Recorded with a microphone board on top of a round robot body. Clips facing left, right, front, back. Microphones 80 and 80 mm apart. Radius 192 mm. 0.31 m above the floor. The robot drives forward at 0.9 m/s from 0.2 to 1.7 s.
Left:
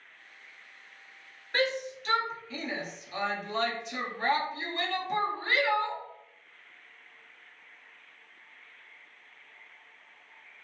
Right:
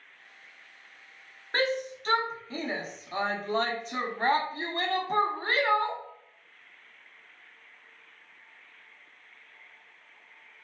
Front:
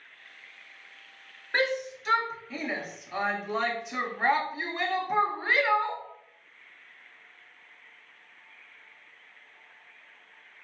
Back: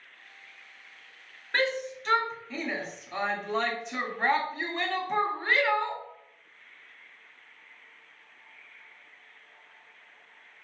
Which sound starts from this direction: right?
A shout, at 1.5 s.